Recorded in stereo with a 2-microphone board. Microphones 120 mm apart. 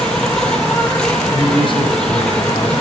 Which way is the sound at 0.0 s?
5° left (ahead or behind).